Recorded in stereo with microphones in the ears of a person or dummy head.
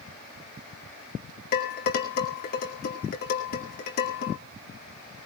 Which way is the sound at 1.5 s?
45° left (ahead or behind).